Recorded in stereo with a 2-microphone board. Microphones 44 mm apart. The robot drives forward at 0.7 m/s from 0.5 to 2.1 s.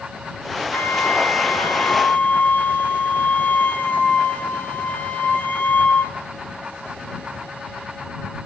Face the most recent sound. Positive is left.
turn(degrees=45)  # may be behind; listen again after turning